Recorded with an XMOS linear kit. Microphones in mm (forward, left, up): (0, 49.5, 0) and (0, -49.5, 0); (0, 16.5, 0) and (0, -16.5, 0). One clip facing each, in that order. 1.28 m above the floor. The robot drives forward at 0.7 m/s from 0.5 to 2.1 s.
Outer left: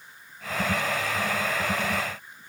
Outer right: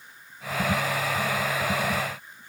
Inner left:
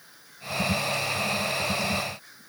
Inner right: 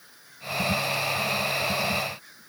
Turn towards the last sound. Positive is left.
No sound to turn to.